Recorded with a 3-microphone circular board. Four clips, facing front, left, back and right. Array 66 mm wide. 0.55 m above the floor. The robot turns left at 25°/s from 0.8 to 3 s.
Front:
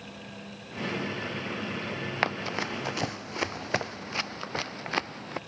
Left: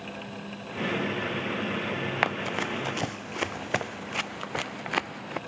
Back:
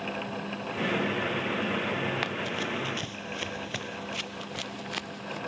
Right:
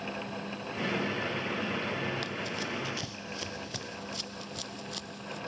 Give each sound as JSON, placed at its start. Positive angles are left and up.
{"t": 2.2, "sound": "running footsteps", "azimuth_deg": 55}